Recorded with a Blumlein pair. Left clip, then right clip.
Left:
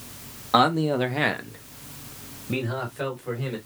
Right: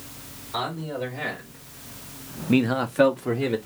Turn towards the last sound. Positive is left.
turn(degrees=-55)